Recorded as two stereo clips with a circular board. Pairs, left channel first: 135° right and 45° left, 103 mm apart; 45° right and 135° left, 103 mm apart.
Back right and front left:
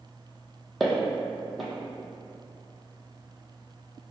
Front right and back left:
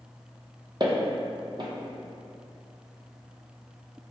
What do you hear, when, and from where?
0.8 s footsteps: 140° left, 0.6 m